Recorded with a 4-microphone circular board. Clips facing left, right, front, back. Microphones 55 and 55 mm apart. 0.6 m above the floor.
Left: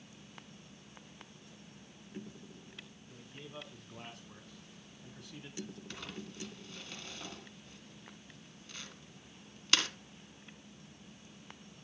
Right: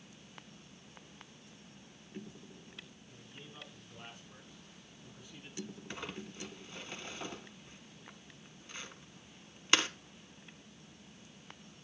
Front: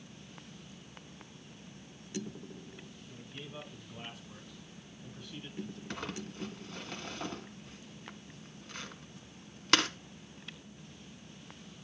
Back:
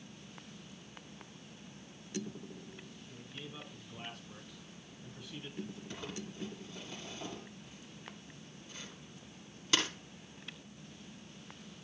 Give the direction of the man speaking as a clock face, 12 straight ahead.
9 o'clock.